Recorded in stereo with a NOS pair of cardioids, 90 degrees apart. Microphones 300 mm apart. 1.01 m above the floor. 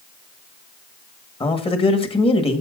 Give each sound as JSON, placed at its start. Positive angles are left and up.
{"t": 1.4, "sound": "a man speaking", "azimuth_deg": 20, "distance_m": 1.6}